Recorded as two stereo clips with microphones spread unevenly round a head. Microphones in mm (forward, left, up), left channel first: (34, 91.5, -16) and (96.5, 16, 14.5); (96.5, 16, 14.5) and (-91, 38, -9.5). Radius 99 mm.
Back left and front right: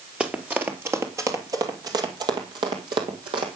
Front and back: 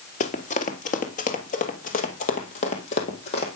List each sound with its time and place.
0.2 s running footsteps: 5° left, 1.4 m; by 3.6 s 60° right, 2.5 m